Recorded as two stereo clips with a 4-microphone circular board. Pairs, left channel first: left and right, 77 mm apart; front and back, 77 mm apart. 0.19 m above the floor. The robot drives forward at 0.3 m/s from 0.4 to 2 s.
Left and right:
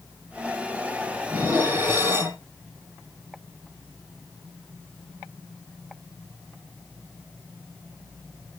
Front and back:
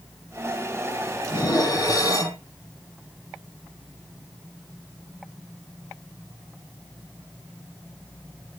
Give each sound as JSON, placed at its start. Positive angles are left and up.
{"t": 1.3, "sound": "dishes clattering", "azimuth_deg": -35, "distance_m": 2.5}